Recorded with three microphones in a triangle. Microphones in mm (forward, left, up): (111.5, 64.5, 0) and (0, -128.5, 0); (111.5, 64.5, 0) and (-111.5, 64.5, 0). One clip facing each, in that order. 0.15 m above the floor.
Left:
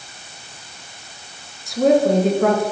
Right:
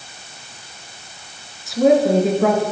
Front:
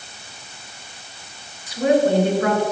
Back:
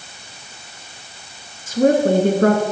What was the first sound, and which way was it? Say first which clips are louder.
A woman speaking: right 1 dB, back 2 dB; 150° left.